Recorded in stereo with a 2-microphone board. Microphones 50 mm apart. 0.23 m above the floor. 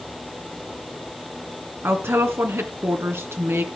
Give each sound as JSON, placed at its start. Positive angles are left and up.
{"t": 1.8, "sound": "a woman speaking", "side_deg": -60, "distance_m": 2.5}